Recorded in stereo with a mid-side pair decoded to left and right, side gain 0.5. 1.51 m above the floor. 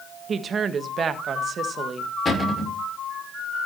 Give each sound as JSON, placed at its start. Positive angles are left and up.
{"t": 0.3, "sound": "a woman speaking", "azimuth_deg": -45, "distance_m": 1.5}
{"t": 2.2, "sound": "a cupboard door", "azimuth_deg": 30, "distance_m": 5.5}